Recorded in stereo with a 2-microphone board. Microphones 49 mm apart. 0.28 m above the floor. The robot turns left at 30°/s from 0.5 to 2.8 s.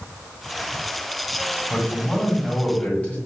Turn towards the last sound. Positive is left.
turn(degrees=85)